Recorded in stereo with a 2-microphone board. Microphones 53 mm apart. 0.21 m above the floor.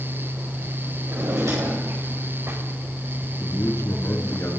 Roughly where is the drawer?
Right.